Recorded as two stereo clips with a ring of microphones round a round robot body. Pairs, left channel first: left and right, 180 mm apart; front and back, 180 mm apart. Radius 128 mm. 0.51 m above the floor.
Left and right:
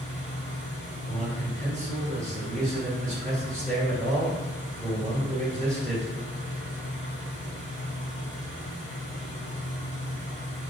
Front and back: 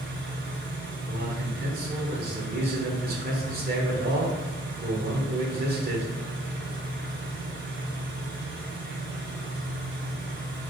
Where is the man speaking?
175° left, 1.8 m.